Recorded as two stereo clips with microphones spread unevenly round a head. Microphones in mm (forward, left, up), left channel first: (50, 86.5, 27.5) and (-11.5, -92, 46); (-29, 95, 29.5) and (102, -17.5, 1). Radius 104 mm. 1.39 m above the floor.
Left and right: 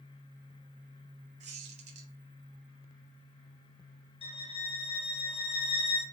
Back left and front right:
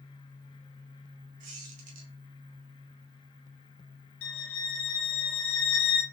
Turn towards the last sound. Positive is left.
turn(degrees=135)